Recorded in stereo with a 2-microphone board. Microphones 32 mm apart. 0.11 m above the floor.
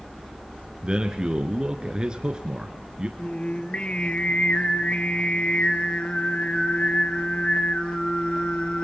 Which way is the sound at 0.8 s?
30° right (ahead or behind).